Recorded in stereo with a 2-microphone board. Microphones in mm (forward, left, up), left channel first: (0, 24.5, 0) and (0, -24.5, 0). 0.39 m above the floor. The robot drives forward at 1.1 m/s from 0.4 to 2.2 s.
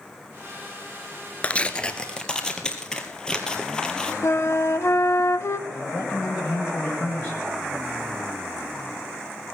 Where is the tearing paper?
25° left (ahead or behind), 1.0 m; by 4.1 s 15° left (ahead or behind), 1.8 m.